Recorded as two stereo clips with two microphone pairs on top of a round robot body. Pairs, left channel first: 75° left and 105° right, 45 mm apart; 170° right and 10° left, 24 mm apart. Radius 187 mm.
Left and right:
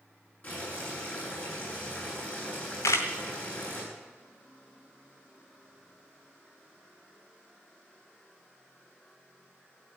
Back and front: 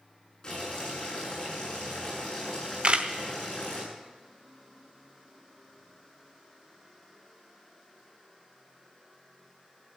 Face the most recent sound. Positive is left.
turn(degrees=65)